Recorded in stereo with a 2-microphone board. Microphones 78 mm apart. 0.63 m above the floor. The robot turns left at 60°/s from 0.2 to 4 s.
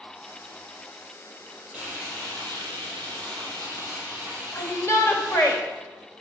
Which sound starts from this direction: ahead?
Frying, at 1.7 s.